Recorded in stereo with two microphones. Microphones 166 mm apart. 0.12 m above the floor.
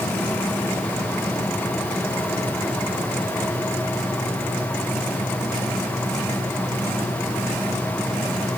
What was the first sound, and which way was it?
Only background noise.